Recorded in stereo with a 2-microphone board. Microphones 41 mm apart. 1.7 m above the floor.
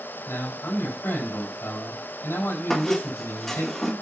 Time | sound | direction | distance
0.3 | a man speaking | 70° left (ahead or behind) | 4.5 m
2.7 | a squeak | 5° left (ahead or behind) | 1.1 m